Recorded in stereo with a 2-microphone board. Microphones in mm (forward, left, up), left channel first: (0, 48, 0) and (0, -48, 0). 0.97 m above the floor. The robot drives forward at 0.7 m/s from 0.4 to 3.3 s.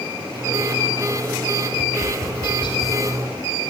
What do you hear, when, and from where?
1.7 s tapping: 65° left (ahead or behind), 4 m; by 3.0 s 55° left (ahead or behind), 4.5 m